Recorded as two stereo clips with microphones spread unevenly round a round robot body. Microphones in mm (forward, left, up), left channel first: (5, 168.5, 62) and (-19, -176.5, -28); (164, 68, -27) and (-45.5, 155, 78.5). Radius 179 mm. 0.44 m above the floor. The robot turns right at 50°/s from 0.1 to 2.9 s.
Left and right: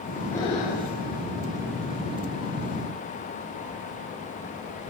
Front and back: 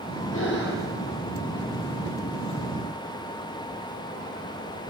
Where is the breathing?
Straight ahead, 5.5 m; by 0.9 s 30° left, 5.5 m.